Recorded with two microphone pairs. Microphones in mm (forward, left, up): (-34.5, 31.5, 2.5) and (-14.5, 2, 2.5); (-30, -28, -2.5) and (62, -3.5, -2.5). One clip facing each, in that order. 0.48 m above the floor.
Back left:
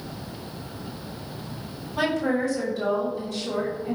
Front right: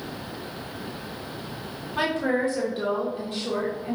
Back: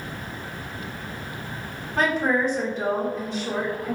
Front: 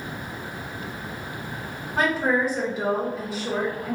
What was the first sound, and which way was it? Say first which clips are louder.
A woman speaking: even, even; 60° right.